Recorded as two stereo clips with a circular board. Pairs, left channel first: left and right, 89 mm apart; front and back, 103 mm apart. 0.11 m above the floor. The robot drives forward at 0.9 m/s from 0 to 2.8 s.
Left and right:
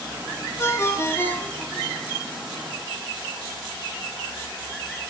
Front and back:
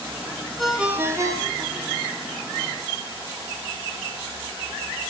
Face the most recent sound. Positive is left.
turn(degrees=165)